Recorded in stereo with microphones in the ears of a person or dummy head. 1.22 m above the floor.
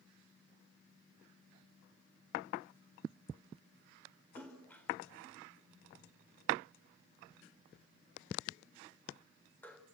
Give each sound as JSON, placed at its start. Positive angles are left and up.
{"t": 4.3, "sound": "a splash", "side_deg": 20, "distance_m": 4.0}